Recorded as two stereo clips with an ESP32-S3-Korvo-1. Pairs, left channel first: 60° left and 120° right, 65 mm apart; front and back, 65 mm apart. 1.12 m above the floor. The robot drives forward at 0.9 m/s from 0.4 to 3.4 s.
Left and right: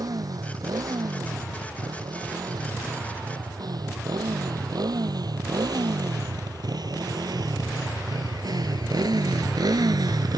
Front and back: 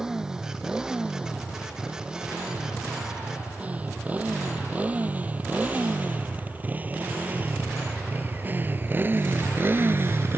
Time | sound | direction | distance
0.0 | a motorcycle | 100° right | ?